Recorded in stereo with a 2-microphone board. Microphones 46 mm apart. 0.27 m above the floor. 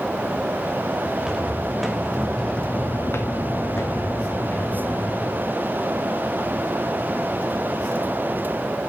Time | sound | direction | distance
1.1 | footsteps | 15° right (ahead or behind) | 1.8 m